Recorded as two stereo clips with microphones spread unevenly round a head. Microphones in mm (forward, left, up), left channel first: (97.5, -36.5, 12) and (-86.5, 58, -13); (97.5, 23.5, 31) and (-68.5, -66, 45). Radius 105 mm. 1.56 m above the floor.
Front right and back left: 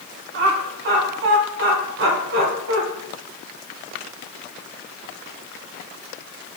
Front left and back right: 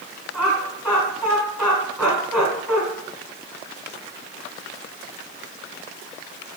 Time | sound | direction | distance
0.3 | laughter | 125° left | 2.0 m